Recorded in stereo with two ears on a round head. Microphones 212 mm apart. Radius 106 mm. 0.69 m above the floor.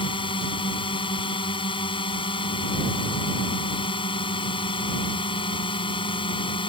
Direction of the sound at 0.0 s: 20° left (ahead or behind).